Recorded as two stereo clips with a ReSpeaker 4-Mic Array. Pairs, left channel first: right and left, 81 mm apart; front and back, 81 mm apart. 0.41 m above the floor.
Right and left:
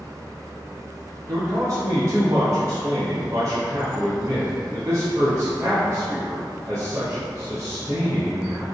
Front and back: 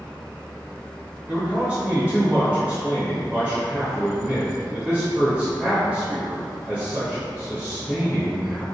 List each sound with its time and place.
1.3 s a man speaking: 110° left, 1.2 m